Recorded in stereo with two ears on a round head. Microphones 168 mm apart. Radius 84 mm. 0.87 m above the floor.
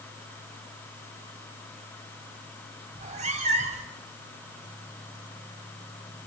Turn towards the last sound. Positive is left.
turn(degrees=-35)  # may be behind; listen again after turning